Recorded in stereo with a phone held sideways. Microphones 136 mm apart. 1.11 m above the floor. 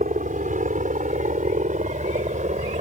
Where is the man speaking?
No man speaking in this recording.